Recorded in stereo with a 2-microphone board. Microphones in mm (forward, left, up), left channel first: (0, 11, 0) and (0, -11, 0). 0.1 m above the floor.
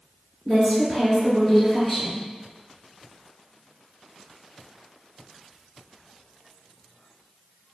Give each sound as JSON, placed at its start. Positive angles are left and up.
{"t": 0.5, "sound": "a woman speaking", "side_deg": 10, "distance_m": 1.9}